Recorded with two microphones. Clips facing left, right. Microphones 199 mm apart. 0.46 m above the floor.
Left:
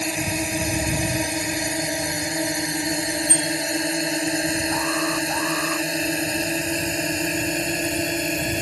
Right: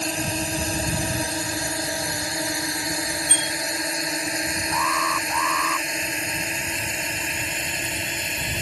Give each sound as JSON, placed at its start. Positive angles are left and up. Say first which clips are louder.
{"t": 0.0, "sound": "a drone", "louder": "left 2 dB", "side_deg": 10}
{"t": 3.3, "sound": "a bicycle bell", "louder": "left 6 dB", "side_deg": 35}
{"t": 4.7, "sound": "an alarm", "louder": "left 4 dB", "side_deg": 40}